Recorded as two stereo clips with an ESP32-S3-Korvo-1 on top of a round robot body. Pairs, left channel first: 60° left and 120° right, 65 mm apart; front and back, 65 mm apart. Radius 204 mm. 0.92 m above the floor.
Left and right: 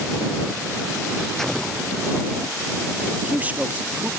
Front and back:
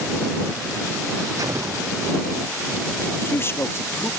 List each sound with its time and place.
1.4 s an explosion: 145° left
3.1 s a man speaking: 55° right